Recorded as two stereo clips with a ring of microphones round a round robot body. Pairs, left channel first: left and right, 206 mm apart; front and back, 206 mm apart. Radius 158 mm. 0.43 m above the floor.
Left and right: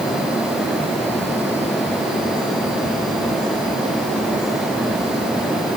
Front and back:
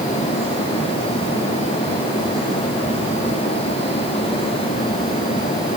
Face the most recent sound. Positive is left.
No sound to turn to.